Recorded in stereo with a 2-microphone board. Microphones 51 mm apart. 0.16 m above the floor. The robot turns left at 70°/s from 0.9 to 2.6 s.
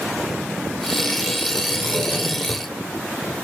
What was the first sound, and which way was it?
A drawer, 120° right.